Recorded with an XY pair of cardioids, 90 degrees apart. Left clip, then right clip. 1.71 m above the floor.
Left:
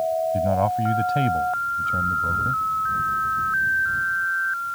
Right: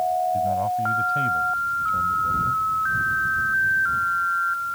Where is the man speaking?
65° left.